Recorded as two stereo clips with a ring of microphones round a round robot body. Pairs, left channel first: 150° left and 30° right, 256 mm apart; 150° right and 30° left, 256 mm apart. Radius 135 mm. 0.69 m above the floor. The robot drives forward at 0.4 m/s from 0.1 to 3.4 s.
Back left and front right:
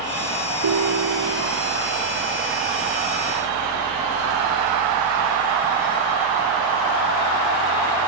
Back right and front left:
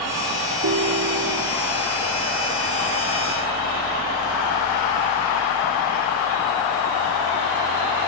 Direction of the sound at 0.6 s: 15° right.